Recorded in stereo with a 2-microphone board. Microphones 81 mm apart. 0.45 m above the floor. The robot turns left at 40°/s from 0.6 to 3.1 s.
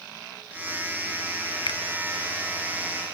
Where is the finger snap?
70° left (ahead or behind); by 1.8 s 75° left (ahead or behind).